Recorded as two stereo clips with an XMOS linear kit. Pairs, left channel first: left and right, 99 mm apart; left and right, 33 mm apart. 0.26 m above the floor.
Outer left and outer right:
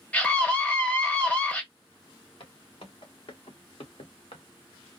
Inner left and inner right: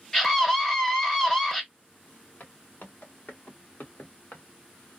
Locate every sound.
0.1 s a scream: 15° left (ahead or behind), 1.1 m
2.4 s footsteps: 75° left (ahead or behind), 2.5 m